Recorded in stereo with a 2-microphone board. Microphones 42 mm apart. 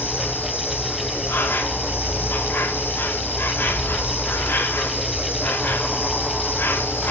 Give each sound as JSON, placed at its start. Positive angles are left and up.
{"t": 0.0, "sound": "an insect", "side_deg": 55, "distance_m": 1.4}